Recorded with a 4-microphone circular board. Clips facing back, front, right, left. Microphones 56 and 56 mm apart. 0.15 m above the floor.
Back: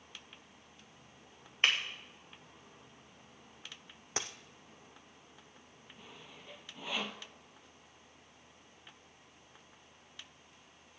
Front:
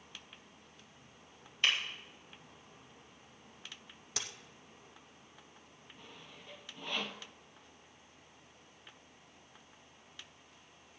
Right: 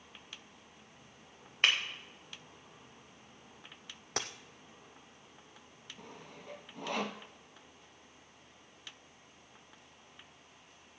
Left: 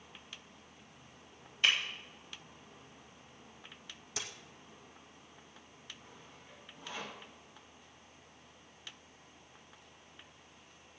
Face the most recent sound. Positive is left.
turn(degrees=-95)